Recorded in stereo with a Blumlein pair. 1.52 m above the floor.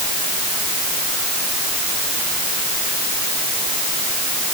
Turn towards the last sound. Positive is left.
No sound to turn to.